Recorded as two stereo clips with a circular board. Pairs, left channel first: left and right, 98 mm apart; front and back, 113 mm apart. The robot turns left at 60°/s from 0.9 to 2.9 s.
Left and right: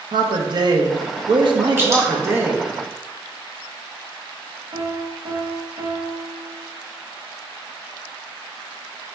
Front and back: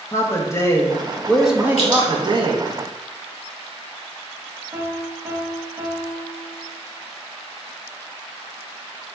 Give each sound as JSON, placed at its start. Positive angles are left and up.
{"t": 0.1, "sound": "a man speaking", "azimuth_deg": -60, "distance_m": 0.6}
{"t": 1.8, "sound": "dripping", "azimuth_deg": -25, "distance_m": 1.1}
{"t": 4.7, "sound": "a piano", "azimuth_deg": -110, "distance_m": 0.7}